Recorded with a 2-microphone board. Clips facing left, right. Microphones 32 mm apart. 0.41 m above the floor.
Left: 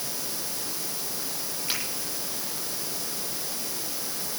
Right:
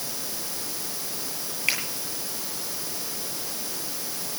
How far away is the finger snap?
About 9.5 m.